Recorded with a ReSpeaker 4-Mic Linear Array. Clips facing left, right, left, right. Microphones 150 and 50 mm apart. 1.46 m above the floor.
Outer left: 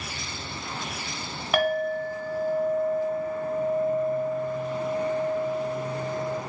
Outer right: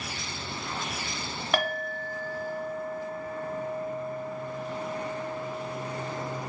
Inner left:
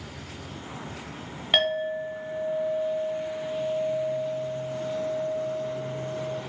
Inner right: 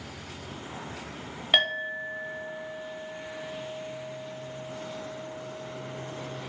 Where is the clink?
5° left (ahead or behind), 0.7 m.